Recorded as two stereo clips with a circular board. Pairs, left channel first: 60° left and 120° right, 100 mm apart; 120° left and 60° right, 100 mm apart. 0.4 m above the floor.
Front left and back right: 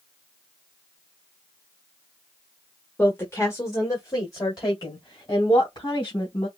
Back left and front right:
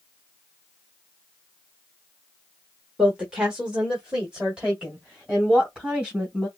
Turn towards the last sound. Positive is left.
turn(degrees=20)